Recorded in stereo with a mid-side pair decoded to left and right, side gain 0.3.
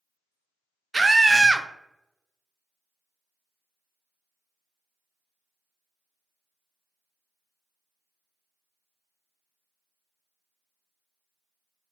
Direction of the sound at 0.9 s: 25° right.